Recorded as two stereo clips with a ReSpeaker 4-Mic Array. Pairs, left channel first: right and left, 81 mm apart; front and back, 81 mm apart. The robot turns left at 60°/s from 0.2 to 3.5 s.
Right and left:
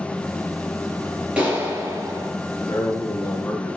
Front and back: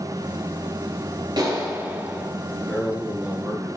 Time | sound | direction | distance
1.4 | a clap | 165° left | 3.5 m
2.7 | a man speaking | 75° right | 2.5 m